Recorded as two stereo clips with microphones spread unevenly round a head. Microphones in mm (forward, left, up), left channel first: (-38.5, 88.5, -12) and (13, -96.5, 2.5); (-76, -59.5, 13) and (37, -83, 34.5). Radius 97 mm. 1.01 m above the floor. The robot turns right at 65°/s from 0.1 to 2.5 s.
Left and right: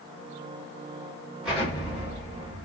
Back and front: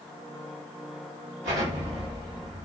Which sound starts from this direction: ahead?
An explosion, at 1.4 s.